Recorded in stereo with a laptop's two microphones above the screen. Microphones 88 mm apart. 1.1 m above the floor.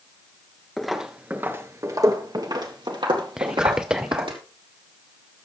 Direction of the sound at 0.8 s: 5° left (ahead or behind).